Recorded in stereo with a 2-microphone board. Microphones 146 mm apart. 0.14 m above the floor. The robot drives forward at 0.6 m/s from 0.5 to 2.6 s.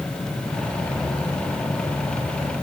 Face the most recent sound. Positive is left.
No sound to turn to.